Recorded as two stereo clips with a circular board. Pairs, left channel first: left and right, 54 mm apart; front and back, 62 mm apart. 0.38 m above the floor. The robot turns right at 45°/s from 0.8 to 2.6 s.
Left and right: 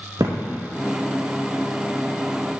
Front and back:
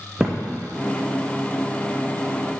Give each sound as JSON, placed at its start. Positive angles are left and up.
{"t": 0.2, "sound": "a thud", "azimuth_deg": -100, "distance_m": 2.5}